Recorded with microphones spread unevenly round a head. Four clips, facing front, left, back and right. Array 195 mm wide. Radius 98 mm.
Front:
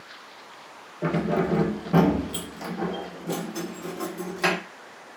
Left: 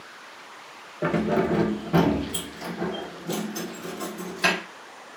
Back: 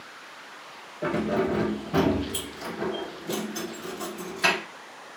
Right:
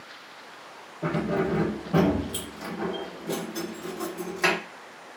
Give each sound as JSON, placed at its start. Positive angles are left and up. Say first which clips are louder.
{"t": 1.0, "sound": "keys jangling", "louder": "left 3 dB, front 1 dB", "azimuth_deg": 75, "distance_m": 0.7}